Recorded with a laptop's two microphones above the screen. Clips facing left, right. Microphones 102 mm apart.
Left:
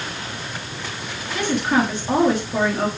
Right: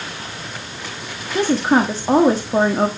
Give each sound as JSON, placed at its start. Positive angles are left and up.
{"t": 1.4, "sound": "a woman speaking", "side_deg": -35, "distance_m": 1.2}